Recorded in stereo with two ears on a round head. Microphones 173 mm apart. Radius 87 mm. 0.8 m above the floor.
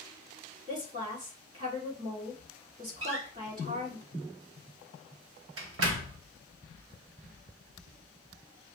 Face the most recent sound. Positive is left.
turn(degrees=-80)